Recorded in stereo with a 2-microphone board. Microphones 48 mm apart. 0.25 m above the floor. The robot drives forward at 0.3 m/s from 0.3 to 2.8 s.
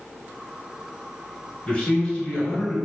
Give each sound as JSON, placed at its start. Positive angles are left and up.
{"t": 1.7, "sound": "a man speaking", "side_deg": 15, "distance_m": 1.7}